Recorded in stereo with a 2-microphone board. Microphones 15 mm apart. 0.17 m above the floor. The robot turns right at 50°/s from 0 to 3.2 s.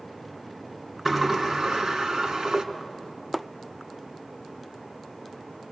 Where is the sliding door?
140° right, 1.9 m; by 2.6 s 60° right, 1.9 m.